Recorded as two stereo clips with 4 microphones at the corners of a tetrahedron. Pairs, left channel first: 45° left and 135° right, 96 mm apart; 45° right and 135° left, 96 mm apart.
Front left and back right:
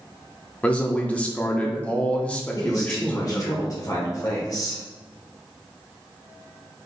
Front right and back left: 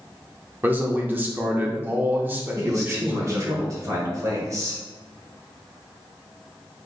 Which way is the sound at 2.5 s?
90° left.